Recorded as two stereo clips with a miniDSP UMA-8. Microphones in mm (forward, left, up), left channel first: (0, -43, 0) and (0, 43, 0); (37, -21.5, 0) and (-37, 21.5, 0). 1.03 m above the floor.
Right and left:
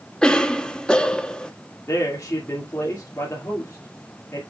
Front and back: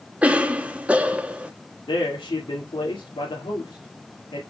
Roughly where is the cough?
Behind right.